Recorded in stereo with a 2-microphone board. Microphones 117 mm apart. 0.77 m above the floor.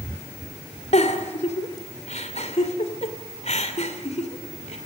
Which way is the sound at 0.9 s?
70° left (ahead or behind).